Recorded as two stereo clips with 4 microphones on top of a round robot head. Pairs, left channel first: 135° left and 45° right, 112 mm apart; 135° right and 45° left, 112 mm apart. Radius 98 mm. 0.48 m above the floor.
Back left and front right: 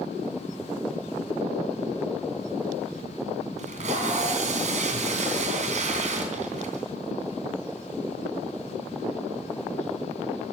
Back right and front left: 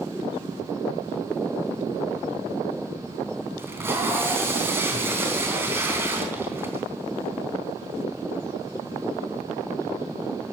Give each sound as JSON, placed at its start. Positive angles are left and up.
{"t": 3.6, "sound": "tape being pulled", "azimuth_deg": -25, "distance_m": 3.5}